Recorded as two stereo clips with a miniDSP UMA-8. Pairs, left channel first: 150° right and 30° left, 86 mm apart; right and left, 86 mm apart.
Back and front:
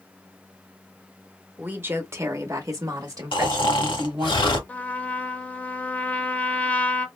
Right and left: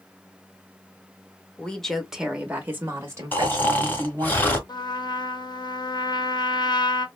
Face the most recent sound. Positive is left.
turn(degrees=-80)